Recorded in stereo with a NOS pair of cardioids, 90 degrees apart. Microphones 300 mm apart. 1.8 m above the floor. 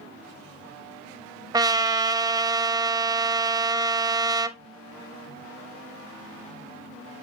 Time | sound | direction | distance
1.5 | a trumpet | 15° right | 0.7 m